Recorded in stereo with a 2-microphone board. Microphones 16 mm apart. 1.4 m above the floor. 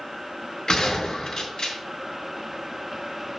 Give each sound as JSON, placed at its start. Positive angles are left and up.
{"t": 0.7, "sound": "a gunshot", "side_deg": 45, "distance_m": 5.0}